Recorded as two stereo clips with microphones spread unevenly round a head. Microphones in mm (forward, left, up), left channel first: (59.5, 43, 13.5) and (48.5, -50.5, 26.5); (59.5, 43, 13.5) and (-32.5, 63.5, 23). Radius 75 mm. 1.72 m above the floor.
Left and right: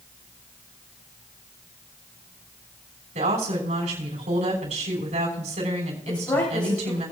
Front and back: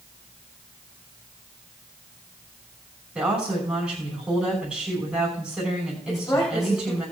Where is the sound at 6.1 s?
40° left, 4.5 m.